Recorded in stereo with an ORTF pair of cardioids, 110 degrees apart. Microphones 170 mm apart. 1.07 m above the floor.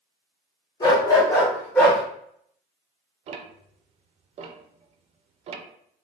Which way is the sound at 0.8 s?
30° left.